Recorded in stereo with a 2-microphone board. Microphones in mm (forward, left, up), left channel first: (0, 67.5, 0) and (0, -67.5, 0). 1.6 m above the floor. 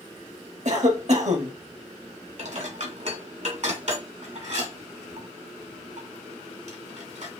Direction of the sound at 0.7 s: 60° right (ahead or behind).